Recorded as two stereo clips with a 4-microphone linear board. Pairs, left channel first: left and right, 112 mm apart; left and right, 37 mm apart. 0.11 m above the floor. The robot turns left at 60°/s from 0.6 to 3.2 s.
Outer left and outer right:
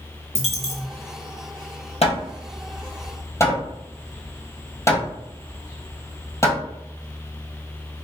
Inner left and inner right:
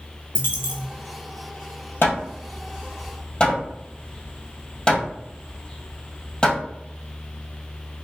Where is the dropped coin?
70° left (ahead or behind), 0.9 m; by 0.9 s 85° left, 0.9 m.